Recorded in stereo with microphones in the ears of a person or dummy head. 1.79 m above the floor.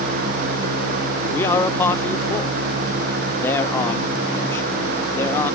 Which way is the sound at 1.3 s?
15° left (ahead or behind).